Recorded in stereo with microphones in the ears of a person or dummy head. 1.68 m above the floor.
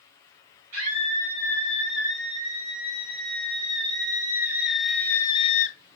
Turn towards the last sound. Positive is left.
turn(degrees=40)  # may be behind; listen again after turning